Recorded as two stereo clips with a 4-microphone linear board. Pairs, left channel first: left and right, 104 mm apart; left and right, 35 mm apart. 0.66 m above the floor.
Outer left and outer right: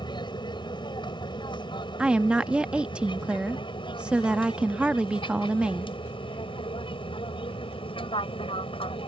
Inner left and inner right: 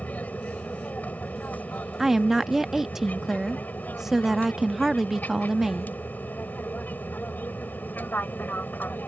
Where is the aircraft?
45° left (ahead or behind); by 9.1 s 60° left (ahead or behind).